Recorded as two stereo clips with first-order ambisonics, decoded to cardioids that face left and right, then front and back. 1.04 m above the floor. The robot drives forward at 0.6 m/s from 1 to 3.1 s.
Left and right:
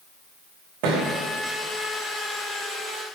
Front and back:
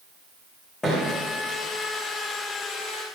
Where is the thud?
80° right, 5.5 m.